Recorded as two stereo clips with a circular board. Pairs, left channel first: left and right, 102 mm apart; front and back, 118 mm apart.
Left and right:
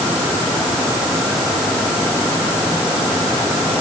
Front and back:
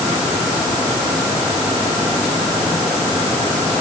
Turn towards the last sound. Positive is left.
No sound to turn to.